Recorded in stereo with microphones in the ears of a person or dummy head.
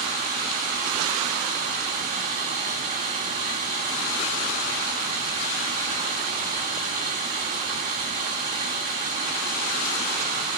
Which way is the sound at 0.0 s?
35° right (ahead or behind).